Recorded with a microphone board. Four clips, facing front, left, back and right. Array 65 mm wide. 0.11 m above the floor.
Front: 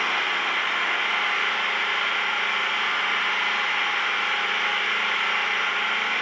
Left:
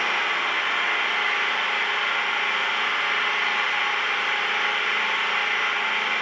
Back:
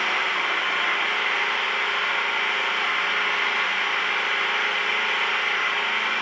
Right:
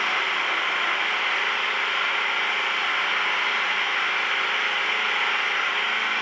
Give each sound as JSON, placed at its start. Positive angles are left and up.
{"t": 0.0, "sound": "an engine running", "azimuth_deg": -155, "distance_m": 2.0}